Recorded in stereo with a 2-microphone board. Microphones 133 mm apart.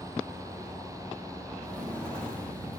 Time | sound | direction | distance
1.6 | footsteps | 5° left (ahead or behind) | 3 m